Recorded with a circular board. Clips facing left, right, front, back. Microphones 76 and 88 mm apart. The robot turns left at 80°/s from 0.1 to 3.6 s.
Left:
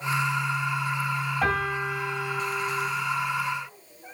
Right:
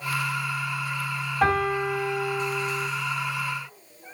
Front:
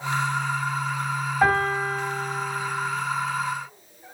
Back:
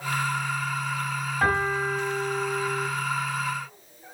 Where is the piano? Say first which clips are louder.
Right 6 dB, front 3 dB; 80° right, 2 m; by 2.9 s 160° left, 2 m.